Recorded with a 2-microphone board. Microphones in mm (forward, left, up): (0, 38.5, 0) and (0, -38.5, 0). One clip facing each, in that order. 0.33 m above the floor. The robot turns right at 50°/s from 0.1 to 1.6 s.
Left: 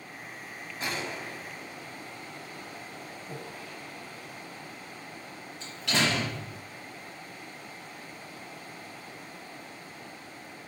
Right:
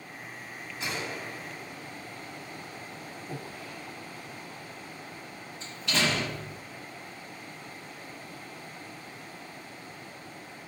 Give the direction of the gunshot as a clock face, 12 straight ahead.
8 o'clock.